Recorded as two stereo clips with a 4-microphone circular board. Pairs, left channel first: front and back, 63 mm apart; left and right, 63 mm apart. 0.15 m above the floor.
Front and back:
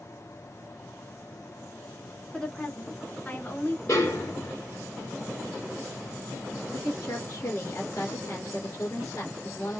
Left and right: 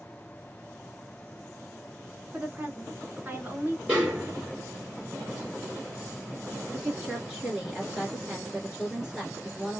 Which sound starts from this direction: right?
A woman speaking, at 2.3 s.